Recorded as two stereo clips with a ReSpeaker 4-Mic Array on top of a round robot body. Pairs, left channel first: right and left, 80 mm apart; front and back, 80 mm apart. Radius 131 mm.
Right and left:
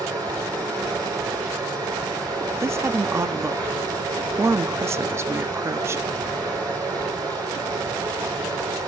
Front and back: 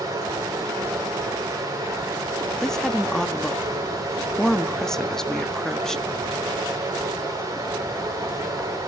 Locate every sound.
0.0 s running water: 130° left, 5.5 m
2.6 s a woman speaking: 80° left, 0.9 m